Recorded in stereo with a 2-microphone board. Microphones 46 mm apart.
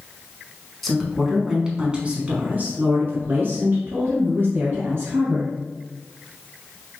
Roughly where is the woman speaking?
Centre.